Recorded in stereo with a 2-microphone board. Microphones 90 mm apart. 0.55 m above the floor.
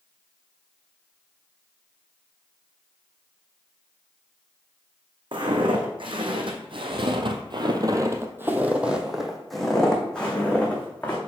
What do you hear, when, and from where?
5.3 s footsteps: 60° right (ahead or behind), 1.9 m; by 11.2 s 15° left (ahead or behind), 2.5 m